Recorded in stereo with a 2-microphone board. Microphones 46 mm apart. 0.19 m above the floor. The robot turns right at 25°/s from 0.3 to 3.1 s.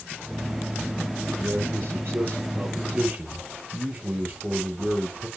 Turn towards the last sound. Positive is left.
turn(degrees=-30)